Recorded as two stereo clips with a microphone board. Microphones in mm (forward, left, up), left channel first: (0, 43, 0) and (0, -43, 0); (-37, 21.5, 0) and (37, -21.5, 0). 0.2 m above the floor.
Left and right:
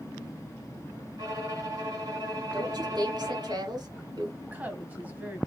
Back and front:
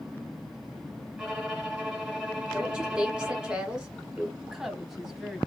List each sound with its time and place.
1.2 s a violin: 115° right, 2.5 m
2.5 s a woman speaking: 110° right, 1.8 m
4.4 s a woman speaking: 110° right, 1.0 m